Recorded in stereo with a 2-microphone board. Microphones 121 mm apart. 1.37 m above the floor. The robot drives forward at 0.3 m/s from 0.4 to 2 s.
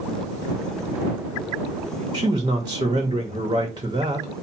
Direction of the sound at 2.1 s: 35° right (ahead or behind).